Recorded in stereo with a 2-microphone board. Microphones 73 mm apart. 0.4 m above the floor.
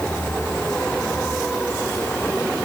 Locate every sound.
Only background noise.